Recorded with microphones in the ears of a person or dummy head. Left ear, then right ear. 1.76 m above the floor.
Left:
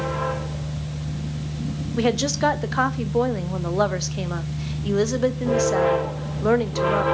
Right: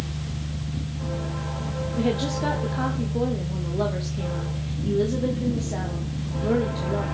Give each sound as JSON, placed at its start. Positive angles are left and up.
{"t": 0.0, "sound": "a fan", "side_deg": 45, "distance_m": 3.0}
{"t": 2.0, "sound": "a woman speaking", "side_deg": 50, "distance_m": 0.6}